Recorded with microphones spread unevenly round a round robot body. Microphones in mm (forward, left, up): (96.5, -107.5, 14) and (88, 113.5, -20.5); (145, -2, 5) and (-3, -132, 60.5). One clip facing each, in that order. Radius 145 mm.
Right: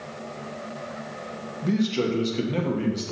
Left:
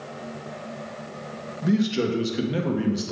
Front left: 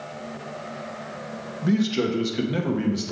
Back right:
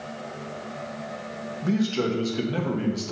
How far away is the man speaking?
About 0.9 m.